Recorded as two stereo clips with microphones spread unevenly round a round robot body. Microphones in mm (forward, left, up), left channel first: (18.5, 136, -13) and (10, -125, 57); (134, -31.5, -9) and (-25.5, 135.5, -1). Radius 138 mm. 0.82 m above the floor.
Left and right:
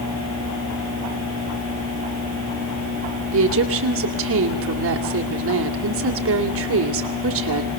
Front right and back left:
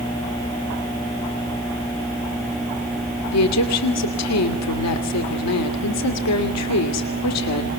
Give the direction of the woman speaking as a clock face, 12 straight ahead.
2 o'clock.